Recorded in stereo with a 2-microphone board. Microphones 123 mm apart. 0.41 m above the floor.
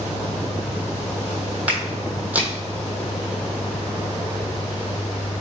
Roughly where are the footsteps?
Centre.